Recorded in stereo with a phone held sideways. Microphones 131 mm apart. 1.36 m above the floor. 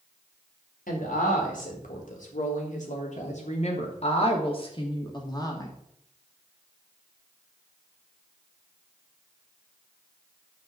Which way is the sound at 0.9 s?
80° left.